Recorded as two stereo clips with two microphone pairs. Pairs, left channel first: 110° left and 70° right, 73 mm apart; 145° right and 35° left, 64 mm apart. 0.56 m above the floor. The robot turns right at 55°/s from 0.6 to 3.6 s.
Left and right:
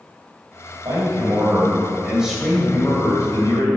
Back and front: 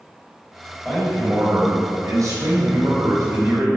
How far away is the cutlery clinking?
I don't hear cutlery clinking.